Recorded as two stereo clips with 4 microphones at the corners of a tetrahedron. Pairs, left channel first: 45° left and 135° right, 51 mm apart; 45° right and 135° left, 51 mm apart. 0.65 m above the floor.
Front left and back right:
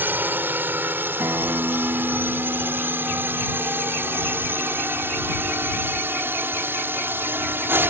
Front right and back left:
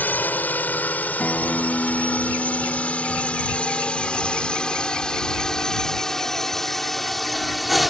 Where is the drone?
95° right; by 7.9 s 135° right.